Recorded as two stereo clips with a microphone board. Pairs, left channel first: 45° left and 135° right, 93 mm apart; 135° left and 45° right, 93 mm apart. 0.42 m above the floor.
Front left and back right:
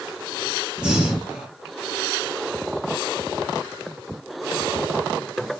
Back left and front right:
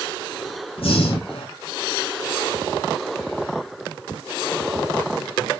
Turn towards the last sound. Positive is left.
turn(degrees=145)